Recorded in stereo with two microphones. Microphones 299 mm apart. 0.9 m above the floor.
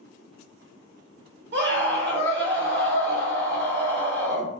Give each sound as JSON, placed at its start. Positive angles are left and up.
{"t": 1.5, "sound": "a scream", "side_deg": -35, "distance_m": 1.8}